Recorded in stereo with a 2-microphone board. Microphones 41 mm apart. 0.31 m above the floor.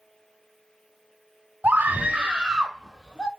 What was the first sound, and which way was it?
A scream, 40° right (ahead or behind).